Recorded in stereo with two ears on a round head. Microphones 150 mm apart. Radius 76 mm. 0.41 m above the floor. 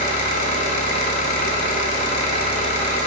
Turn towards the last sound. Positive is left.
turn(degrees=50)  # may be behind; listen again after turning